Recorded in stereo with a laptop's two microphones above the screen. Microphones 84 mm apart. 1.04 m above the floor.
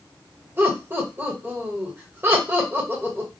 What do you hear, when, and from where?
0.6 s laughter: 25° right (ahead or behind), 1.2 m